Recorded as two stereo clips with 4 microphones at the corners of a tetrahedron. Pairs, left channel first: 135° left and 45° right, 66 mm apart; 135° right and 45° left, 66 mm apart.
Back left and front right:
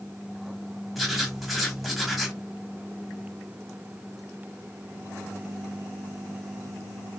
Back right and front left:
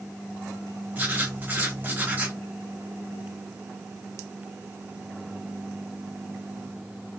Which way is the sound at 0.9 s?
45° left.